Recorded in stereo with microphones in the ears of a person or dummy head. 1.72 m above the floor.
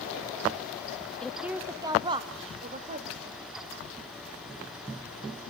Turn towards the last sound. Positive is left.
turn(degrees=-50)  # may be behind; listen again after turning